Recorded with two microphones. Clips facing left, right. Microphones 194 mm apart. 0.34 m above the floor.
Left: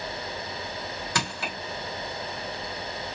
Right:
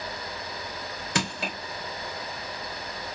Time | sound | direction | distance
1.1 | crushing | 20° right (ahead or behind) | 1.1 m